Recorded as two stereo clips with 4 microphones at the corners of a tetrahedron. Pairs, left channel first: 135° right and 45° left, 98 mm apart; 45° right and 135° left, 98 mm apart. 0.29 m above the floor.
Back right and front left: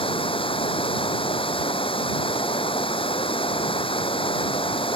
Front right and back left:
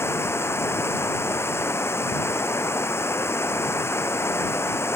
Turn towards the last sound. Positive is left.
turn(degrees=-110)